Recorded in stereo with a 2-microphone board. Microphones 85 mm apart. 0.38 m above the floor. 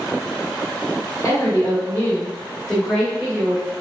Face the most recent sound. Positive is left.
turn(degrees=-20)  # may be behind; listen again after turning